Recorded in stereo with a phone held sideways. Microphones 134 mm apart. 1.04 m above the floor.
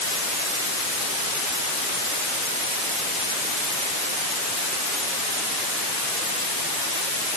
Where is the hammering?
No hammering in this recording.